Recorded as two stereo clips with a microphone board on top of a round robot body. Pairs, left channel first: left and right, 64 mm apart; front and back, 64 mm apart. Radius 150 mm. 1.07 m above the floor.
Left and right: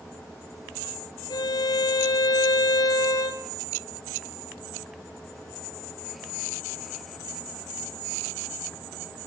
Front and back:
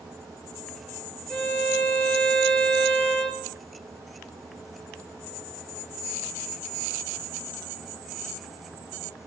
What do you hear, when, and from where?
1.3 s a violin: 75° left, 0.7 m